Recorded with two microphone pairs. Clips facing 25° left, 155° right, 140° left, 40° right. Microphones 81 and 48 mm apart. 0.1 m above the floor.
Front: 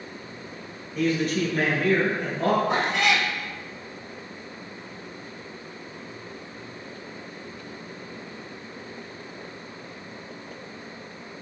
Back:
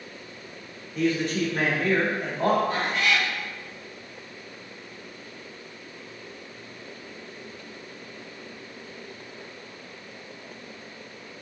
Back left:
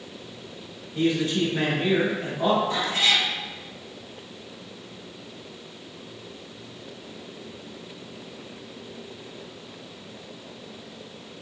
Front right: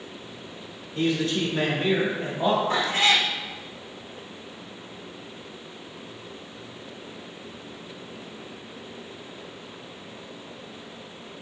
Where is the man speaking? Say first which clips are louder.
Front 1 dB, back left 1 dB; straight behind, 1.3 m; by 2.6 s 135° right, 1.6 m.